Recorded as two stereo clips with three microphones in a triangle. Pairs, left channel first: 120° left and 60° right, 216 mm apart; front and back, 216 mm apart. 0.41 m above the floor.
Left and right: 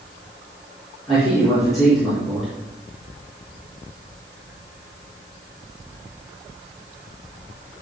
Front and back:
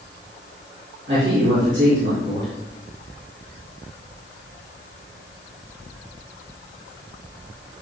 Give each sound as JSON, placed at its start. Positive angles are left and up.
{"t": 1.1, "sound": "a man speaking", "azimuth_deg": -150, "distance_m": 5.0}